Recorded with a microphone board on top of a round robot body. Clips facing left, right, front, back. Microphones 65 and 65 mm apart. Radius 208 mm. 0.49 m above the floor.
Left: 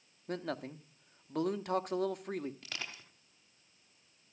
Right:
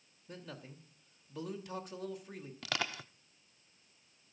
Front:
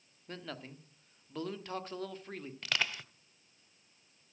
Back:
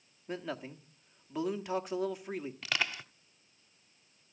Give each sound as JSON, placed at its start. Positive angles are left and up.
{"t": 0.3, "sound": "a man speaking", "azimuth_deg": 105, "distance_m": 1.8}
{"t": 2.6, "sound": "crushing", "azimuth_deg": -95, "distance_m": 0.5}